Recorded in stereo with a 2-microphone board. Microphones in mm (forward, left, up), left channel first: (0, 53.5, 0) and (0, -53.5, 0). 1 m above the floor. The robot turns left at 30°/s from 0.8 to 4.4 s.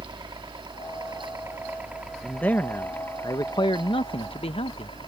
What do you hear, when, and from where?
0.0 s a helicopter: 135° right; by 5.1 s 120° left
2.2 s a man speaking: 170° left; by 5.0 s 105° left